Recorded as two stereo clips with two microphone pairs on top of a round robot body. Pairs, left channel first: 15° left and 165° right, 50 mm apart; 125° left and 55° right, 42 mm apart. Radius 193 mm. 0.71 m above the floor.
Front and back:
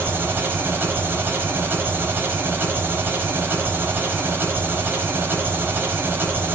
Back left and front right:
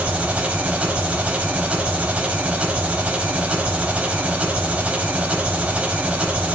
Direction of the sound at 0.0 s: 115° right.